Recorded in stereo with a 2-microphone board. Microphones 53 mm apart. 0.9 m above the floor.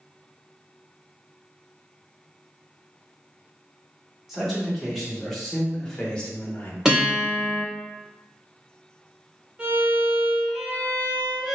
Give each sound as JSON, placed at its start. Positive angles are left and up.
{"t": 4.3, "sound": "a man speaking", "side_deg": -5, "distance_m": 1.8}
{"t": 6.8, "sound": "a guitar", "side_deg": -10, "distance_m": 1.4}
{"t": 9.6, "sound": "a violin", "side_deg": -20, "distance_m": 1.2}